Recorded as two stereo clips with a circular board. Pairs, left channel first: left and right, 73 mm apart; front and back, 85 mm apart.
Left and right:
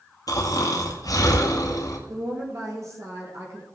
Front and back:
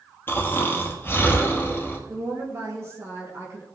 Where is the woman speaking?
130° right, 4 m.